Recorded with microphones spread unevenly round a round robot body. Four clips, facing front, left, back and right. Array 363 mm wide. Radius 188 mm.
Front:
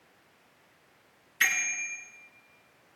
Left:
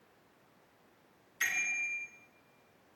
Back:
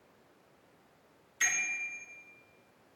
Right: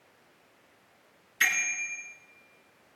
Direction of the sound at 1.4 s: 55° right.